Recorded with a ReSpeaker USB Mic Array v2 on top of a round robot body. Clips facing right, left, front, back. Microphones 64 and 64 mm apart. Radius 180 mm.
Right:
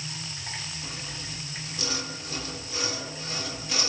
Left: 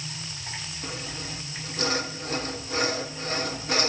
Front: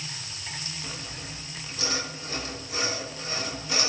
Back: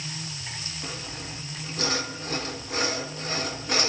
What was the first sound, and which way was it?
Sawing, 140° left.